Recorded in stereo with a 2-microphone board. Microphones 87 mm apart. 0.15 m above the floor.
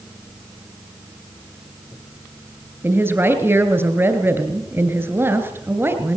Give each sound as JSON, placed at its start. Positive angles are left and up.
{"t": 2.8, "sound": "a woman speaking", "side_deg": -25, "distance_m": 3.0}